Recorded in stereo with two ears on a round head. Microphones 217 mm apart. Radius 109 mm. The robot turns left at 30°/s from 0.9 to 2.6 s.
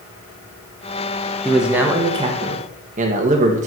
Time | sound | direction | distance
1.4 | a man speaking | straight ahead | 1.3 m